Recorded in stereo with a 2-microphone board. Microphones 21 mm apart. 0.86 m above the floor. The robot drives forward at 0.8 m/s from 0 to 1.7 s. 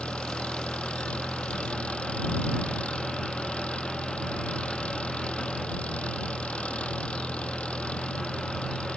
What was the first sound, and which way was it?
An engine running, 65° left (ahead or behind).